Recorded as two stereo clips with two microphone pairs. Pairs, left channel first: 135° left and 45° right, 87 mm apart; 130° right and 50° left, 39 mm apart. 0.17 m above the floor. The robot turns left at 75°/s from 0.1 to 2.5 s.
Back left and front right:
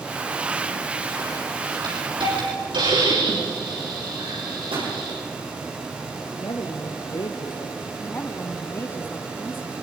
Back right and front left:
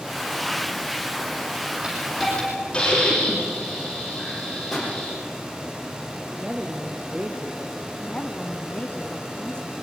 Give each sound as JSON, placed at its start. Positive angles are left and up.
{"t": 1.8, "sound": "a hiss", "azimuth_deg": -10, "distance_m": 9.5}
{"t": 4.7, "sound": "a pop", "azimuth_deg": -45, "distance_m": 7.5}
{"t": 6.3, "sound": "a woman speaking", "azimuth_deg": 115, "distance_m": 3.0}
{"t": 8.0, "sound": "a woman speaking", "azimuth_deg": -175, "distance_m": 1.5}